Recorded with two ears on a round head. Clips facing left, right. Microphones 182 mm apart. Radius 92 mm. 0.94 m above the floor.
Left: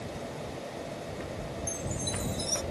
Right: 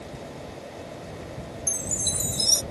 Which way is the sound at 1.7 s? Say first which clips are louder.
Even; 80° right.